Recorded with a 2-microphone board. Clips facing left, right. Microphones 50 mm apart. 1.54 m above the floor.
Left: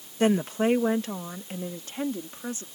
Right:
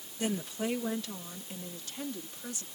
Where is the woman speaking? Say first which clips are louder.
Left 10 dB; 50° left (ahead or behind); by 2.7 s 40° left (ahead or behind).